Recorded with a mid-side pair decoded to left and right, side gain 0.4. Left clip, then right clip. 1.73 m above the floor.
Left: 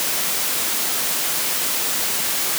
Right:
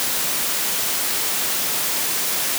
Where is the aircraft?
I don't hear an aircraft.